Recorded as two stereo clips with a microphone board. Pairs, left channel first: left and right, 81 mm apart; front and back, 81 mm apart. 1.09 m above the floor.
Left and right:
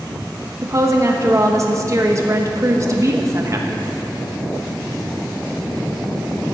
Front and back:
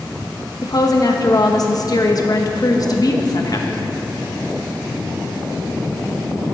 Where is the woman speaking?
40° right, 1.0 m.